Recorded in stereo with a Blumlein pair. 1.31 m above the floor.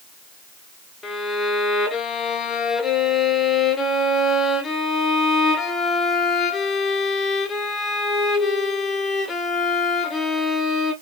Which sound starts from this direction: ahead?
A violin, at 1.0 s.